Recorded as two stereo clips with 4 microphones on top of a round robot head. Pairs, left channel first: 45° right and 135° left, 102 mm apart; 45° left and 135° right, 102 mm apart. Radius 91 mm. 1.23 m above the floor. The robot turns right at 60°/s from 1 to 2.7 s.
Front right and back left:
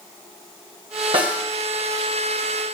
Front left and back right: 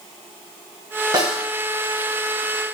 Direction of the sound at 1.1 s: 170° left.